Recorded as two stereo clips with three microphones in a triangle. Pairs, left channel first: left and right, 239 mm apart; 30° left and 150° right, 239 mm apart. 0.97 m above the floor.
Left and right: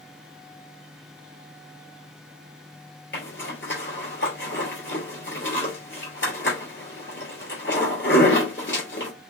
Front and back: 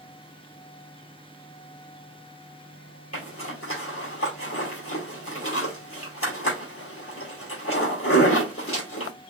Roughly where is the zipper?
Ahead left.